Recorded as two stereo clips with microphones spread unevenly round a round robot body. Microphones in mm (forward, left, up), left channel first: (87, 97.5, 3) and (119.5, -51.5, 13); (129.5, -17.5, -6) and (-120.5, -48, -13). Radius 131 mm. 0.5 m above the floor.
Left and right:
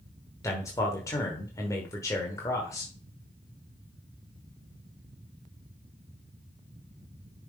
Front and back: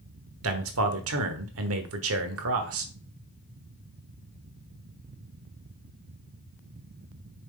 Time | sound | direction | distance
0.4 | a man speaking | 170° left | 1.2 m